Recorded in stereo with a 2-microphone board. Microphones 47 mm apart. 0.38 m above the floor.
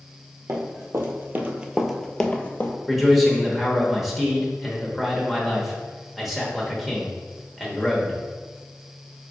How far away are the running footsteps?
About 1.0 m.